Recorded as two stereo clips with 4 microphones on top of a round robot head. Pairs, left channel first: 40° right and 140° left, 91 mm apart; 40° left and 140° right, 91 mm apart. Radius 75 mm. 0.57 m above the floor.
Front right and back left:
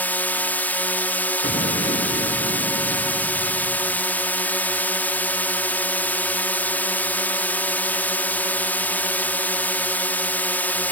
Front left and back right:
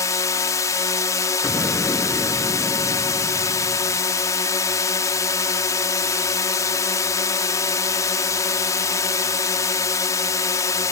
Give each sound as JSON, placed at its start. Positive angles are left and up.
{"t": 0.0, "sound": "a drone", "azimuth_deg": 20}
{"t": 1.4, "sound": "an explosion", "azimuth_deg": -45}